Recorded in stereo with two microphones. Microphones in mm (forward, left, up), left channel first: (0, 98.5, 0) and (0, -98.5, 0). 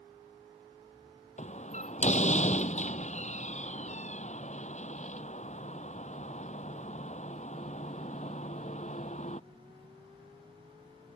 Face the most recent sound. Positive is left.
turn(degrees=35)  # may be behind; listen again after turning